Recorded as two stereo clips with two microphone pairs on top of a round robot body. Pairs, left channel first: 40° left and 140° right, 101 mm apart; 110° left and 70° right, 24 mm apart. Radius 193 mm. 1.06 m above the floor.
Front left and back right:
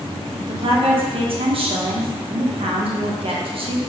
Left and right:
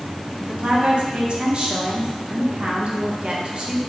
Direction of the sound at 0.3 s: 120° right.